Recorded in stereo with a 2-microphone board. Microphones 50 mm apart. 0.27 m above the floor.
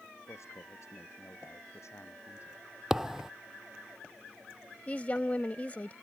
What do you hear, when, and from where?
0.3 s a man speaking: 70° left (ahead or behind); by 2.6 s 65° left (ahead or behind)
2.9 s a thud: 10° right (ahead or behind)
4.9 s a woman speaking: 30° left (ahead or behind)